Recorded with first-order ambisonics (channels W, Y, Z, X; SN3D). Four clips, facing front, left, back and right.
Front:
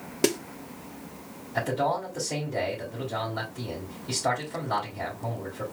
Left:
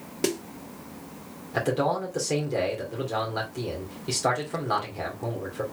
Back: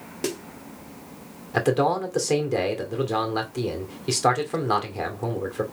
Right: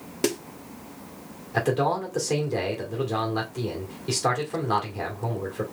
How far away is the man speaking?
About 1.9 m.